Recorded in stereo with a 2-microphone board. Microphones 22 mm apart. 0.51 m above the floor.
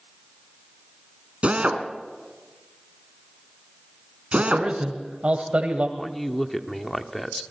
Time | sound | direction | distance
1.4 | a drill | 70° right (ahead or behind) | 2.5 m
4.4 | a man speaking | 70° right (ahead or behind) | 2 m
6.0 | a man speaking | 10° left (ahead or behind) | 1.2 m